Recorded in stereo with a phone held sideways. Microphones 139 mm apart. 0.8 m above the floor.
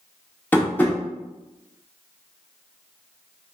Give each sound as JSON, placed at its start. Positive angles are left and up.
{"t": 0.5, "sound": "tapping", "side_deg": 10, "distance_m": 1.1}